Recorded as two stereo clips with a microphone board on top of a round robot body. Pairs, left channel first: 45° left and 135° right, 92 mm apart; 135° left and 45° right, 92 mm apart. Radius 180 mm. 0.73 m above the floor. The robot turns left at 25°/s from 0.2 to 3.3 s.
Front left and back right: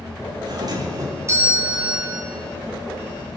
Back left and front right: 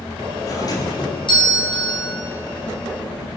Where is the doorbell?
175° right, 2.5 m; by 2.2 s 145° left, 2.5 m.